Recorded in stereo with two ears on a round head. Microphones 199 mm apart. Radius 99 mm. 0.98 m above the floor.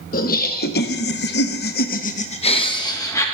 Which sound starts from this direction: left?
Laughter, at 0.1 s.